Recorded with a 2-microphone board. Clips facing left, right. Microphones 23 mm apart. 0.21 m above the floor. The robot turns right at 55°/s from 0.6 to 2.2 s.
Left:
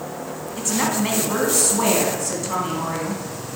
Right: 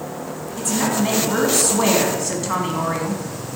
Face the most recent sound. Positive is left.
turn(degrees=-145)